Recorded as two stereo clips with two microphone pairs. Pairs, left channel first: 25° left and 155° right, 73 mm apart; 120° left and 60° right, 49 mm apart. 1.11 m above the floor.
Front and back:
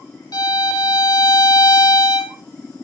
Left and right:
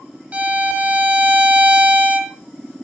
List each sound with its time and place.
0.3 s a violin: straight ahead, 1.7 m